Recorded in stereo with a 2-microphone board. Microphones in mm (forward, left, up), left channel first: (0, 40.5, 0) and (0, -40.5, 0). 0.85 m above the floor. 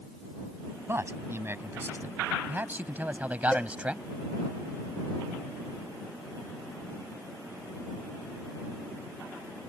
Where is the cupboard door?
No cupboard door in this recording.